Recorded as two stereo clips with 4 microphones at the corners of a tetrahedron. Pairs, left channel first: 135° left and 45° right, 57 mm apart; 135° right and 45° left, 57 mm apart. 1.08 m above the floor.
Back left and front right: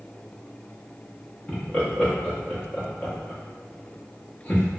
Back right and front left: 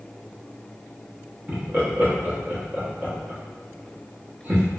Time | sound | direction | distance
1.5 | laughter | 80° left | 0.9 m